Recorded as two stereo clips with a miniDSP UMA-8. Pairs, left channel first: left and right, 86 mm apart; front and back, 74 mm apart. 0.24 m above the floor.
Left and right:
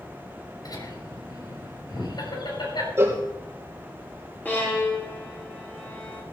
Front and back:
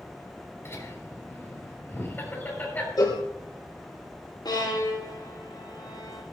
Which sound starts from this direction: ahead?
A violin, at 4.5 s.